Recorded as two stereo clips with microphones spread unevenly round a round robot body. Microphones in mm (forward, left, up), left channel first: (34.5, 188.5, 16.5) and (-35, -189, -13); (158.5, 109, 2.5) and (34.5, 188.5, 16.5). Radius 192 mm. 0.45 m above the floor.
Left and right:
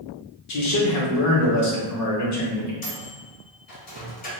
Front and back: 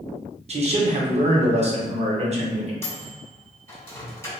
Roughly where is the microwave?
Ahead left.